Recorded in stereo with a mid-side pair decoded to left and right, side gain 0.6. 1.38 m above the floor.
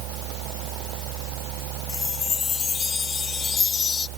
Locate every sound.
0.0 s a machine running: 70° right
1.9 s a chime: 35° left